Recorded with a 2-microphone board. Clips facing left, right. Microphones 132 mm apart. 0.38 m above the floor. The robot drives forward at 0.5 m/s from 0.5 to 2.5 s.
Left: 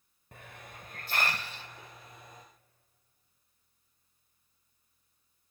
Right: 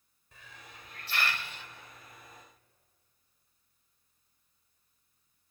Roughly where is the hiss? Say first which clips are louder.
Left 4 dB; left.